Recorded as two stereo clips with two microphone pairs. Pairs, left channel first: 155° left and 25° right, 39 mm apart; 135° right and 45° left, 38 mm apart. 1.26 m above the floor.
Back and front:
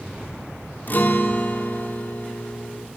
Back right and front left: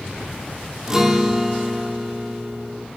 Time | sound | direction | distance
0.9 | a guitar | 120° left | 3 m